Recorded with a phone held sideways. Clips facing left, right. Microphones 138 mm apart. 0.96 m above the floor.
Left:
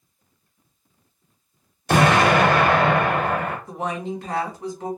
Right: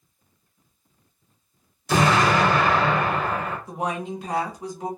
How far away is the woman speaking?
About 1.1 m.